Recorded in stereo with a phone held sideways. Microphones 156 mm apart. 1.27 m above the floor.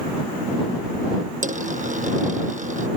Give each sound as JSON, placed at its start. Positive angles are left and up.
{"t": 1.4, "sound": "a dropped coin", "side_deg": -55}